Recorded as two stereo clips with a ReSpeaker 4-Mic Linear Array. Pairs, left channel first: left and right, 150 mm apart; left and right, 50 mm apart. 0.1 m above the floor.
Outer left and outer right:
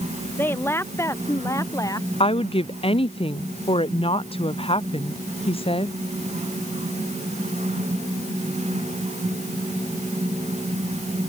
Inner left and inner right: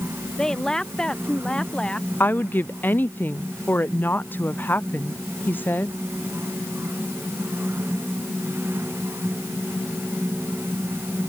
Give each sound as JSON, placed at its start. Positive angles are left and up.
{"t": 0.4, "sound": "a woman speaking", "side_deg": 15}
{"t": 2.2, "sound": "a woman speaking", "side_deg": 40}